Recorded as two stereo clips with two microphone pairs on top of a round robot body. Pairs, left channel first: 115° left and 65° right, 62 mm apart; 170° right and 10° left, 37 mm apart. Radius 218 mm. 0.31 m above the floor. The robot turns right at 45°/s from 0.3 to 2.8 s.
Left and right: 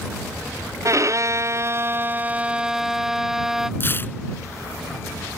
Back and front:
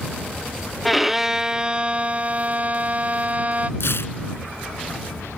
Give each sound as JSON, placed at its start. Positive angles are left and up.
{"t": 0.8, "sound": "a violin", "azimuth_deg": -70}
{"t": 3.8, "sound": "tearing paper", "azimuth_deg": 175}